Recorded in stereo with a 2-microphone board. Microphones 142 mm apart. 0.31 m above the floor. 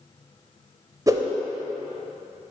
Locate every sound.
1.1 s a whoosh: 25° right (ahead or behind), 0.6 m